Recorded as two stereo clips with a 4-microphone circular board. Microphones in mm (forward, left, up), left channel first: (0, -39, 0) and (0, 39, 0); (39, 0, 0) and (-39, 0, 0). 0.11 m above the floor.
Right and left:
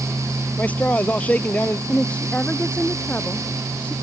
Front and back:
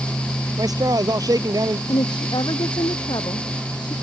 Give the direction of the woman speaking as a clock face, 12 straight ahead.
1 o'clock.